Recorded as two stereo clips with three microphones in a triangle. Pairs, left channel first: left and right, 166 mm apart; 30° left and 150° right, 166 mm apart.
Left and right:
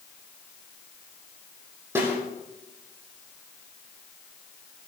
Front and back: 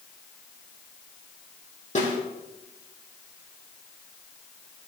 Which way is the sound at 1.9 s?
15° right.